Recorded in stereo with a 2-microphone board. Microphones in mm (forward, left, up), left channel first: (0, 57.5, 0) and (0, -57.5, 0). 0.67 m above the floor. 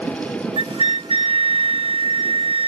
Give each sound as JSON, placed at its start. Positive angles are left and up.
{"t": 0.6, "sound": "a flute", "side_deg": -55, "distance_m": 0.5}